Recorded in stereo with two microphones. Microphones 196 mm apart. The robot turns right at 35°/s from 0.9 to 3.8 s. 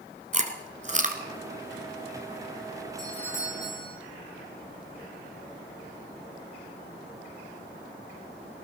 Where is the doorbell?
Centre (ahead or behind), 6.5 m; by 4.0 s 30° left (ahead or behind), 6.5 m.